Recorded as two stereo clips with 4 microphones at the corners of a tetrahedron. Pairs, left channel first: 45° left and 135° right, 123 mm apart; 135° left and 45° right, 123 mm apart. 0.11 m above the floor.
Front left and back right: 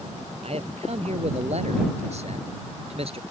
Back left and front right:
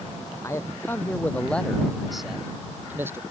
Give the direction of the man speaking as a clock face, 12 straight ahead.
5 o'clock.